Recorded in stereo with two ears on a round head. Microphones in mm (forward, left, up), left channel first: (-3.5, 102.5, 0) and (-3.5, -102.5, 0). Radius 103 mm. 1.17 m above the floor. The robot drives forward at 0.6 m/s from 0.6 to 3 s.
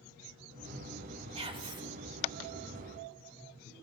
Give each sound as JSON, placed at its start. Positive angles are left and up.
{"t": 1.4, "sound": "whispering", "side_deg": -25, "distance_m": 1.1}